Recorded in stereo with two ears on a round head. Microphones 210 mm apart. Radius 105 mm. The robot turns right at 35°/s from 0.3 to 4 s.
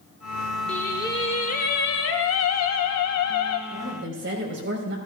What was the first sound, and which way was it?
Singing, 5° left.